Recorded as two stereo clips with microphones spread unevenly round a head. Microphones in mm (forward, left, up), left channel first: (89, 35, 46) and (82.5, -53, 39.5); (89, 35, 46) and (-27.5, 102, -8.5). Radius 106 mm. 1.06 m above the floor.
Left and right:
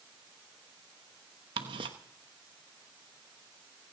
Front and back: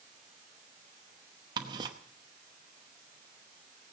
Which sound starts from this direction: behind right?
Ticking, at 1.6 s.